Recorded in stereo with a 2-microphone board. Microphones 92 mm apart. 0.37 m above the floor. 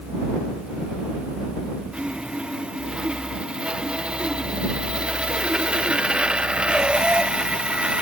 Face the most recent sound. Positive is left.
turn(degrees=-10)  # may be behind; listen again after turning